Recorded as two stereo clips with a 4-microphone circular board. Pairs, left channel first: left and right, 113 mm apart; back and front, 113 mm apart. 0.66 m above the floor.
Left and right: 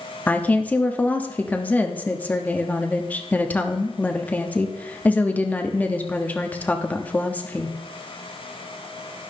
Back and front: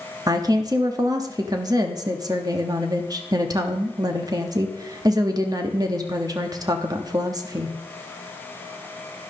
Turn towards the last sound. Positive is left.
turn(degrees=25)